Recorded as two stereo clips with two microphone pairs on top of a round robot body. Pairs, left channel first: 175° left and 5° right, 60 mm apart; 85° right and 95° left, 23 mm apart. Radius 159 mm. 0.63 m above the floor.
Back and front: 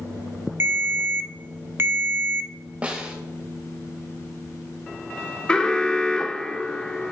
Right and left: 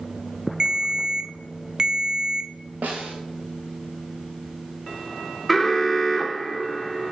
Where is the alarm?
160° right, 1.2 m.